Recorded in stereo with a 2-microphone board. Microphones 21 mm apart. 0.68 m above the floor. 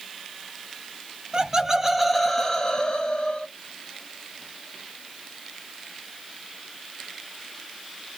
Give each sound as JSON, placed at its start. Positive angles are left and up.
{"t": 1.3, "sound": "laughter", "side_deg": -30, "distance_m": 0.7}